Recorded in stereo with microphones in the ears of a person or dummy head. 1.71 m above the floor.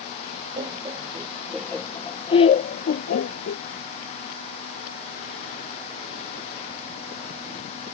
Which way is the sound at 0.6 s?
30° right (ahead or behind).